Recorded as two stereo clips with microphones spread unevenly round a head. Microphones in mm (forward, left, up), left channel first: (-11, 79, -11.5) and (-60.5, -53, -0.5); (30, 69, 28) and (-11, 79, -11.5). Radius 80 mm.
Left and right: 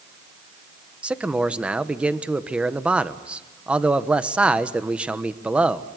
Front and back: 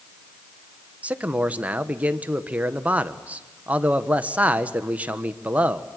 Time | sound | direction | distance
1.0 | a man speaking | 165° left | 1.2 m